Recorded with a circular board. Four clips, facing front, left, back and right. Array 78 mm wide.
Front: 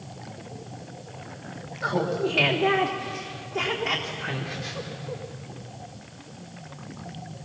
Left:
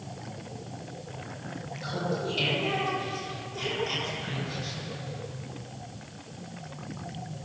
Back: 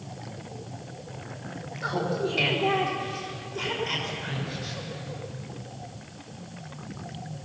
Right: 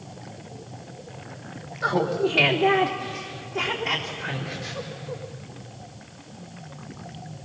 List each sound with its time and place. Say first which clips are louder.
1.8 s laughter: right 9 dB, front 3 dB; 65° right, 2 m; by 5.2 s 30° right, 3.5 m